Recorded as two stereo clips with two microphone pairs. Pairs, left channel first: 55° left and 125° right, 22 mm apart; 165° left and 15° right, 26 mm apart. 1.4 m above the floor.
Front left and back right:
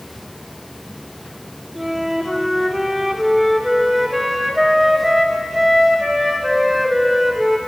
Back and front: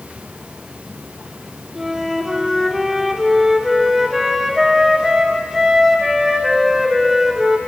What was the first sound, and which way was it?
A flute, 75° right.